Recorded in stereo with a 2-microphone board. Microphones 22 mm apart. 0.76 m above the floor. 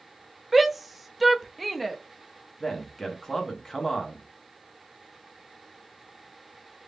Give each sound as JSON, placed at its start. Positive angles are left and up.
{"t": 0.5, "sound": "a shout", "side_deg": 0, "distance_m": 0.7}
{"t": 2.6, "sound": "a man speaking", "side_deg": 15, "distance_m": 1.1}